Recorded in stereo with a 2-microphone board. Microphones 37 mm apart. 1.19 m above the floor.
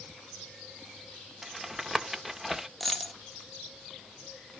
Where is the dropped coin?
5° left (ahead or behind), 0.9 m.